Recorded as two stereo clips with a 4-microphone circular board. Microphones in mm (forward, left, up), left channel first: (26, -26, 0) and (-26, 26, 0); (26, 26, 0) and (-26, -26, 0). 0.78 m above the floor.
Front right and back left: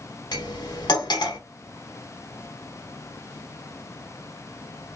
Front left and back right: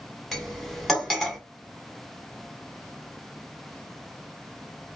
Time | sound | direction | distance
0.3 | cutlery clinking | 40° right | 1.1 m